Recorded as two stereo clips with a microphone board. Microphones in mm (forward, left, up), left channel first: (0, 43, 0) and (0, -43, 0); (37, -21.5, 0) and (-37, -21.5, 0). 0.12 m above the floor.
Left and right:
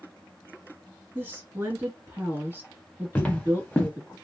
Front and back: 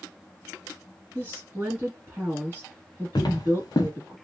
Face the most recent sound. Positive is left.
turn(degrees=15)